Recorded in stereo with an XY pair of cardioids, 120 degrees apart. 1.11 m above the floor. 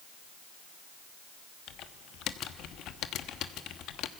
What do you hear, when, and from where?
1.7 s typing on a keyboard: 70° left, 1.0 m